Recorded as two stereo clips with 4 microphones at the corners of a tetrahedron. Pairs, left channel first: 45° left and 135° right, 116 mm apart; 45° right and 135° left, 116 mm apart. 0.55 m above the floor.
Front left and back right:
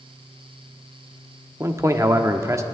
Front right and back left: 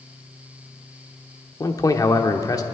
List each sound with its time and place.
1.6 s a man speaking: 80° right, 0.8 m